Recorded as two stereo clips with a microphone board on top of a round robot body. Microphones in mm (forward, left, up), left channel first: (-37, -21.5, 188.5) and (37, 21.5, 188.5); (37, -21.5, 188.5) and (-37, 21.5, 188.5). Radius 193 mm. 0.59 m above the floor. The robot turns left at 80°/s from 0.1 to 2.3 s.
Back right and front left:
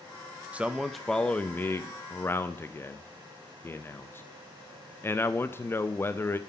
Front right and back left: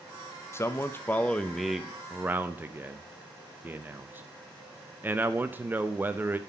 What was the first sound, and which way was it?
A man speaking, 30° right.